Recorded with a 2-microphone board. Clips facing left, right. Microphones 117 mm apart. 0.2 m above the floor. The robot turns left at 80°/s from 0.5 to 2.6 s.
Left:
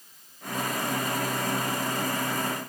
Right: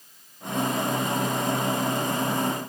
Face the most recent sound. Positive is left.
No sound to turn to.